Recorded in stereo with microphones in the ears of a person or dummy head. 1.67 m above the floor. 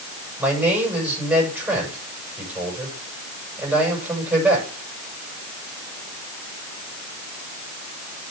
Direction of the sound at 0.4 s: 15° right (ahead or behind).